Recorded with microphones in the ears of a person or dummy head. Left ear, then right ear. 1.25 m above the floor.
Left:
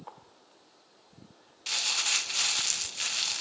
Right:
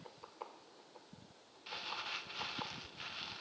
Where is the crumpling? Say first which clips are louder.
Left 14 dB; 65° left (ahead or behind).